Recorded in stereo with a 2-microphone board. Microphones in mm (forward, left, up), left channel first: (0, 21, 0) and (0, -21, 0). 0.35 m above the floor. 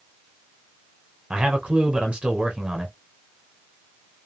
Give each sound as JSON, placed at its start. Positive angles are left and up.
{"t": 1.3, "sound": "a man speaking", "side_deg": -25, "distance_m": 1.1}